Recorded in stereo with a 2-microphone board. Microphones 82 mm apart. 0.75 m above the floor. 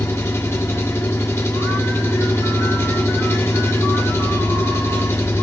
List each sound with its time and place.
0.0 s an engine running: 35° left (ahead or behind), 1.6 m